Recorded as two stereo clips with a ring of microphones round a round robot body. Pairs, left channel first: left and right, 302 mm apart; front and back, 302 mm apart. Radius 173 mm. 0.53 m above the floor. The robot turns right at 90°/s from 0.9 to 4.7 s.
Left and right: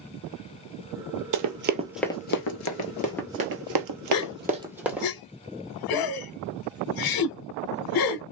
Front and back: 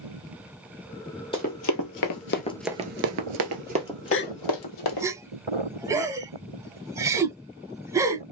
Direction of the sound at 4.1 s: 45° left.